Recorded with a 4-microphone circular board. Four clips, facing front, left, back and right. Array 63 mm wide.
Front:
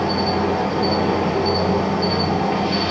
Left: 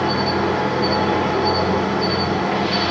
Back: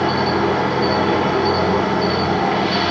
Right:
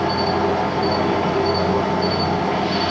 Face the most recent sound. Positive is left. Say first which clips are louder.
# even, back 2 dB
turn(degrees=175)